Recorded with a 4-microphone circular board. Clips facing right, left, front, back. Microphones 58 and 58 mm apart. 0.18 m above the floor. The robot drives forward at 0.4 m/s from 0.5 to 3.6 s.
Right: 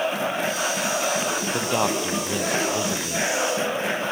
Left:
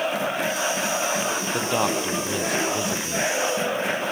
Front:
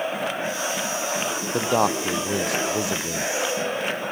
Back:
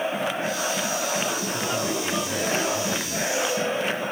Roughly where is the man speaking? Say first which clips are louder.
Even, front 5 dB; ahead.